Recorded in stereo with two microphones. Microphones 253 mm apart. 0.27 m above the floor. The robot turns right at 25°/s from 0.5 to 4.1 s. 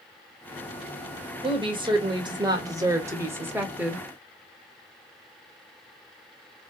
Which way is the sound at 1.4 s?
20° right (ahead or behind).